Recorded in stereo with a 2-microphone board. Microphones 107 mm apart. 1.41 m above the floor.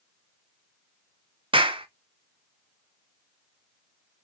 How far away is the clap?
About 0.5 m.